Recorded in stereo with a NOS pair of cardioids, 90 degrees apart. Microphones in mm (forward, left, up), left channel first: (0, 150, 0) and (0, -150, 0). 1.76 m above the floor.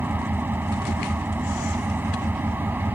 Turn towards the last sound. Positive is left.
turn(degrees=-5)